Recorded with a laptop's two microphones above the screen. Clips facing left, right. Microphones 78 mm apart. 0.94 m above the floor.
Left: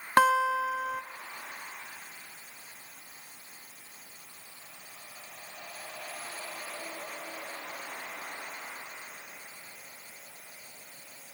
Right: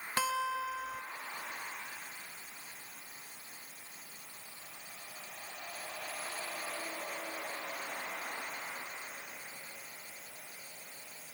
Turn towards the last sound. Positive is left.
turn(degrees=60)  # may be behind; listen again after turning